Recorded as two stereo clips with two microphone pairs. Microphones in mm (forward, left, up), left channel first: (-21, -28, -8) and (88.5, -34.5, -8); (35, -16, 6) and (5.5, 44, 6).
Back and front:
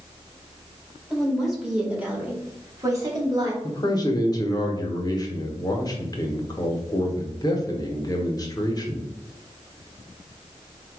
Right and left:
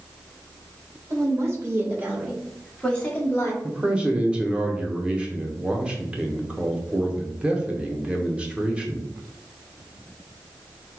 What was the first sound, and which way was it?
A woman speaking, 90° left.